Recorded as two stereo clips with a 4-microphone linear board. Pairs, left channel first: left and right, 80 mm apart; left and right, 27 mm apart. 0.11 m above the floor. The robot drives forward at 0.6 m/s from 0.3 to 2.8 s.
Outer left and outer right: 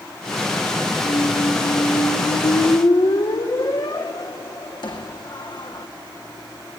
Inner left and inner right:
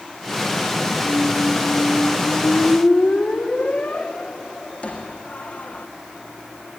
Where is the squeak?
80° left, 2.5 m; by 5.9 s 65° left (ahead or behind), 2.5 m.